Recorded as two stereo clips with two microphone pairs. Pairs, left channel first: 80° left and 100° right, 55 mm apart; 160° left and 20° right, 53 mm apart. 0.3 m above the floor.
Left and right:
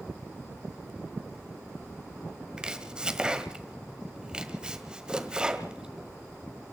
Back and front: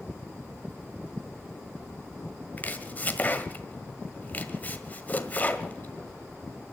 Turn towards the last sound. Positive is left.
turn(degrees=-165)